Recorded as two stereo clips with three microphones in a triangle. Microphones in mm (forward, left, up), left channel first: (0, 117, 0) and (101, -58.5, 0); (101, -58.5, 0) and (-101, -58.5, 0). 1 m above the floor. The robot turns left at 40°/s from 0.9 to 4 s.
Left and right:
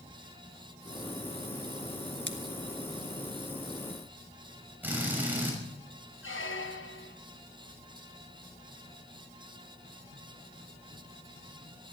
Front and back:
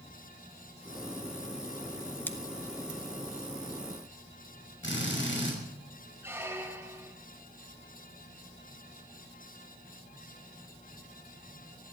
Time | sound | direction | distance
2.3 | scissors | 80° right | 1.4 m
4.8 | a drill | 20° left | 6 m
6.2 | a squeak | 100° left | 1.0 m